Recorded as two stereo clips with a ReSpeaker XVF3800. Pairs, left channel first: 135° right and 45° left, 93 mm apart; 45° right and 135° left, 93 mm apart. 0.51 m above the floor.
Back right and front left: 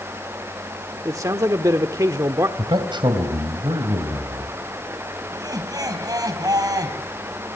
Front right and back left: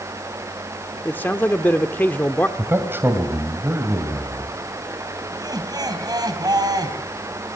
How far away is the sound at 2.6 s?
About 2.5 m.